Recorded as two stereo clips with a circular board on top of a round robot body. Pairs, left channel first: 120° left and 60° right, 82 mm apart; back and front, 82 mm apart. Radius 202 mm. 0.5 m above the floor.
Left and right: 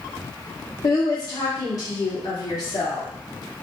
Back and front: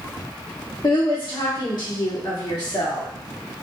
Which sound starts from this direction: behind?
A woman speaking, at 0.8 s.